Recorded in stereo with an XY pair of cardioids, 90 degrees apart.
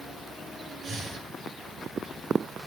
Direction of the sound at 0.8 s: 70° right.